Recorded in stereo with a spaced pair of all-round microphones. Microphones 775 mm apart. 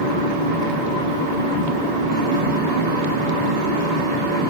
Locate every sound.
0.0 s a fan: 65° right (ahead or behind), 1.0 m